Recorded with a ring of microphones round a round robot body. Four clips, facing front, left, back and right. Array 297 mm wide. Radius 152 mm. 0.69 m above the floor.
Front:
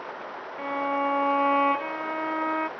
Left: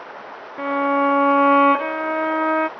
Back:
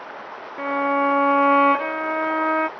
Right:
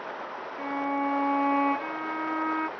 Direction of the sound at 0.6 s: 115° left.